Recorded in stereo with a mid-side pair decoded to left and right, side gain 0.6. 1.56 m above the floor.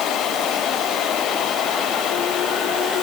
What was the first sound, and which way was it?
Only background noise.